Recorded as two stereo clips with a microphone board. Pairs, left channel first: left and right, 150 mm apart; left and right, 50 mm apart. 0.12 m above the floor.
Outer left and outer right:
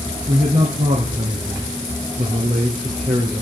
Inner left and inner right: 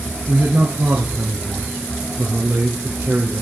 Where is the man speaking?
60° right (ahead or behind), 2.5 m.